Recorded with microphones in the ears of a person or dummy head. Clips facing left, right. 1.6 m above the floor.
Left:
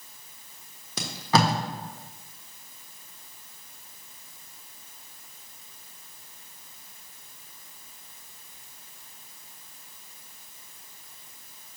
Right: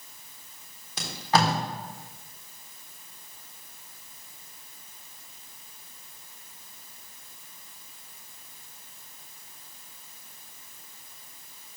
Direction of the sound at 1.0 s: 70° left (ahead or behind).